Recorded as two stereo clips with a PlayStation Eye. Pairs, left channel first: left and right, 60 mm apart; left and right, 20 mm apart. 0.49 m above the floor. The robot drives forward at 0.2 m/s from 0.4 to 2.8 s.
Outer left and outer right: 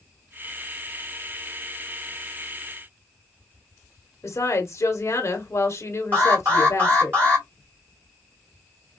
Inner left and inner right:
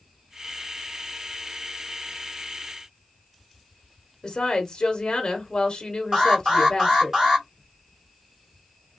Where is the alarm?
35° right (ahead or behind), 3 m.